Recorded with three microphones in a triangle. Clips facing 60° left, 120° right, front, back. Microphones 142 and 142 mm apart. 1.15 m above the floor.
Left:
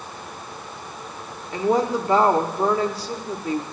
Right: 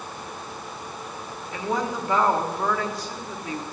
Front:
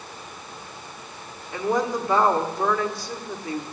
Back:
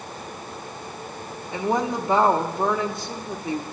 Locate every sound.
1.5 s a woman speaking: 115° left, 1.1 m